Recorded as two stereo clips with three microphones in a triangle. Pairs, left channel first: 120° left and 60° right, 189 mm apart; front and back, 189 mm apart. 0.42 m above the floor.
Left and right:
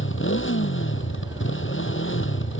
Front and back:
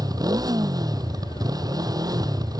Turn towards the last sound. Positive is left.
turn(degrees=110)